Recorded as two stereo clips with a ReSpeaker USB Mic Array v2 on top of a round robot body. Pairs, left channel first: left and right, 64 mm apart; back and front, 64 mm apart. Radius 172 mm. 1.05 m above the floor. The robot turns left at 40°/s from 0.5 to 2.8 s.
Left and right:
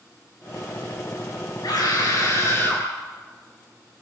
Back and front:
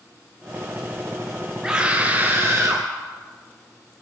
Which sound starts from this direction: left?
A scream, at 1.6 s.